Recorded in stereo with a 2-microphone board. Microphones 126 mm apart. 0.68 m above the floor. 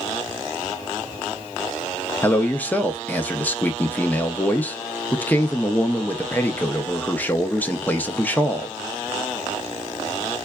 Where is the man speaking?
10° left (ahead or behind), 0.6 m.